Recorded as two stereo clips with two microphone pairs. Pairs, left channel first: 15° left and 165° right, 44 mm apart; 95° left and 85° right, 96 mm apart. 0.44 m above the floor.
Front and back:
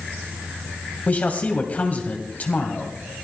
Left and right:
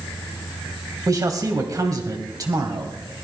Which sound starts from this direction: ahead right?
A man speaking, at 1.1 s.